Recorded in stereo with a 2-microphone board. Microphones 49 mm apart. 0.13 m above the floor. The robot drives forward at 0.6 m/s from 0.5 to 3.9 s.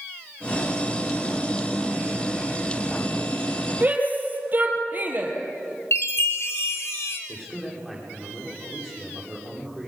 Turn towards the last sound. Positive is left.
turn(degrees=0)  # may be behind; listen again after turning